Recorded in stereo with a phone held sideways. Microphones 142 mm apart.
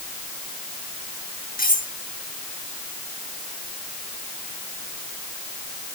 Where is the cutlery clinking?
85° left, 8 m.